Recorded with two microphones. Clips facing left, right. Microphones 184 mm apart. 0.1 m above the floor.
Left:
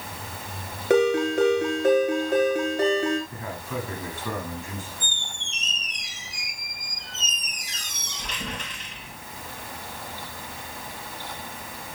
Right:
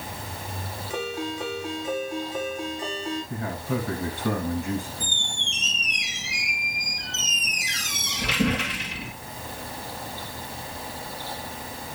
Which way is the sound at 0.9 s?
70° left (ahead or behind).